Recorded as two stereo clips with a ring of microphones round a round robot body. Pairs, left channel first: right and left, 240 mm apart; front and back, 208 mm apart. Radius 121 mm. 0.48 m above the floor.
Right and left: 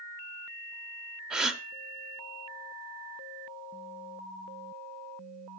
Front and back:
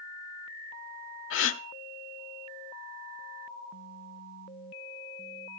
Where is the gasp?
5° left, 0.9 m.